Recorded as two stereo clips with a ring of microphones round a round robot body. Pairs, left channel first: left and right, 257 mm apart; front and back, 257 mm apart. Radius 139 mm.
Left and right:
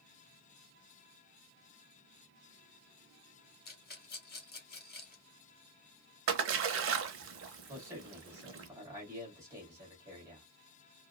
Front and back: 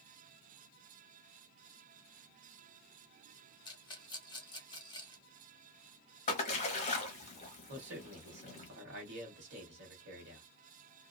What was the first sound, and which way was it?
A rattle, 65° left.